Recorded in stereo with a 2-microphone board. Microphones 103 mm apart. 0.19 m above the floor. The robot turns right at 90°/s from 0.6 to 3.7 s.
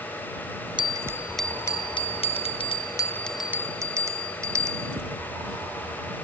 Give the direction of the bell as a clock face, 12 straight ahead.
2 o'clock.